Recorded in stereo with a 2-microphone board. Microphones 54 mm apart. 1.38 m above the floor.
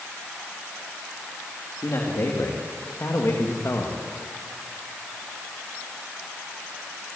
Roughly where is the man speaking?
Left.